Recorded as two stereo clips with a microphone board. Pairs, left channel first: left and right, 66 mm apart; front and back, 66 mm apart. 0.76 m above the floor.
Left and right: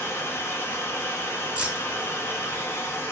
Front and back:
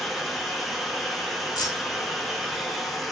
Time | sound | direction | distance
0.0 | running water | 95° left | 0.8 m
1.6 | keys jangling | 20° right | 1.0 m